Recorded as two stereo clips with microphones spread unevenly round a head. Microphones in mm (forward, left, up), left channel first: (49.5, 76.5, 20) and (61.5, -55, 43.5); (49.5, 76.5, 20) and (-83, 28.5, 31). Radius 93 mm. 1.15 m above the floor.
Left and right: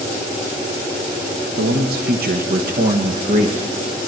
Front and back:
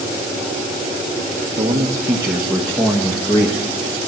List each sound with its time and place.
1.6 s a man speaking: 95° right, 1.0 m; by 4.0 s 50° right, 1.7 m